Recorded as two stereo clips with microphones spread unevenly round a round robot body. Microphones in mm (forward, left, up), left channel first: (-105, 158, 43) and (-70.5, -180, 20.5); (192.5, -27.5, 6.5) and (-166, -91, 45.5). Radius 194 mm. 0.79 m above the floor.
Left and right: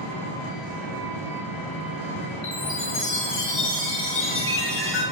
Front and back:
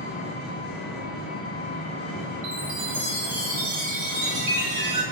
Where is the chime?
150° left, 1.1 m.